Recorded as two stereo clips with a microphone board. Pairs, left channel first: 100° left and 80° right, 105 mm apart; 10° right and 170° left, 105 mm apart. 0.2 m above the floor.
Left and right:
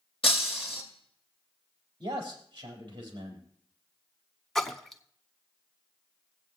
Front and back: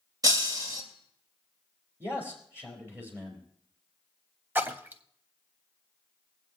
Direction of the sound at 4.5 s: Straight behind.